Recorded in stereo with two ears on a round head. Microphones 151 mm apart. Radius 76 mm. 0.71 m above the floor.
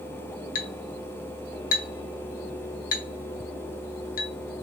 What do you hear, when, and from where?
0.6 s a clink: 55° left (ahead or behind), 1.1 m